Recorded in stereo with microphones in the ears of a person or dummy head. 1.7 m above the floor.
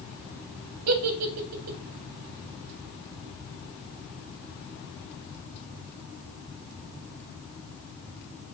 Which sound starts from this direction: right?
A giggle, at 0.9 s.